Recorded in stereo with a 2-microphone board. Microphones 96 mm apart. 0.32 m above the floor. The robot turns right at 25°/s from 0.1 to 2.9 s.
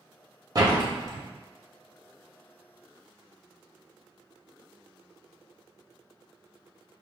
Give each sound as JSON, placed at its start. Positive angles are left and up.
{"t": 0.6, "sound": "a door slam", "side_deg": -40, "distance_m": 0.8}